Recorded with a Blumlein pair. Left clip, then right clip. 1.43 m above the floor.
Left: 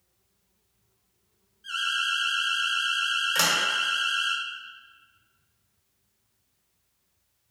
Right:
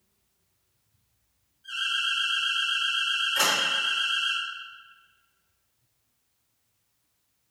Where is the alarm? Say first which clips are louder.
Left 1 dB; 25° left, 0.9 m.